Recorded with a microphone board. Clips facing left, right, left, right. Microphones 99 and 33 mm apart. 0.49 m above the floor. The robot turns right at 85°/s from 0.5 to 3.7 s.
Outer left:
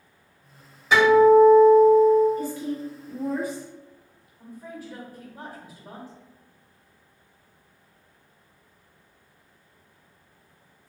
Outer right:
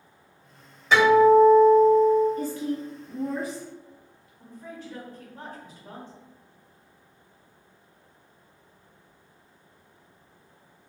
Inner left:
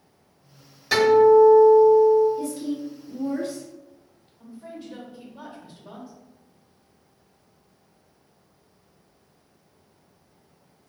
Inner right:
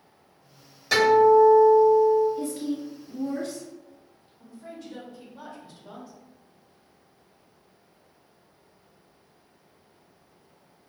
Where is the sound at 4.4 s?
10° left (ahead or behind), 1.3 m.